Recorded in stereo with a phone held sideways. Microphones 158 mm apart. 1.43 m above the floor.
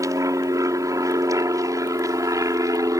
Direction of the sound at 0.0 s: 20° right (ahead or behind).